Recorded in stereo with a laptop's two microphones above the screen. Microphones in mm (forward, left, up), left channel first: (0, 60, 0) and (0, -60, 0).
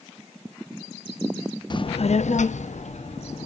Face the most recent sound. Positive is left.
turn(degrees=60)  # may be behind; listen again after turning